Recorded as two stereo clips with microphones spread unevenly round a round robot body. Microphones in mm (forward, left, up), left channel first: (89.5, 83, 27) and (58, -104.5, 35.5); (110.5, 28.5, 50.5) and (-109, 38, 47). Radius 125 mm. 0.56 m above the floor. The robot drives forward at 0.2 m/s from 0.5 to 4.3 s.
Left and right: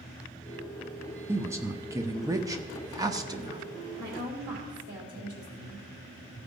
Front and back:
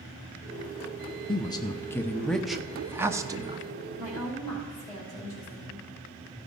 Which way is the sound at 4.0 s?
90° right.